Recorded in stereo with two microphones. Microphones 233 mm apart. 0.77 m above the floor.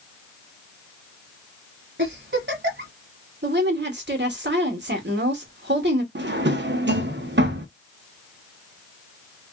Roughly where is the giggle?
Right.